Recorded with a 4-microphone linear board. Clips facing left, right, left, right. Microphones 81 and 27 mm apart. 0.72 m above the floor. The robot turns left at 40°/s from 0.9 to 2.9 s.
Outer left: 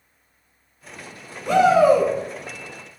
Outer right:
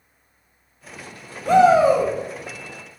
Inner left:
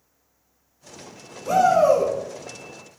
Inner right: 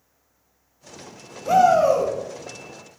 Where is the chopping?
I don't hear chopping.